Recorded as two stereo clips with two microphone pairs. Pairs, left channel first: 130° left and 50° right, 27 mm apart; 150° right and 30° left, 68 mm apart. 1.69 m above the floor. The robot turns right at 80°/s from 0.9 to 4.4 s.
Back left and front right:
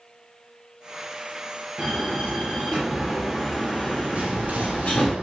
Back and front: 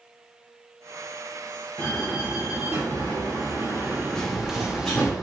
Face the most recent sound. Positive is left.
turn(degrees=-55)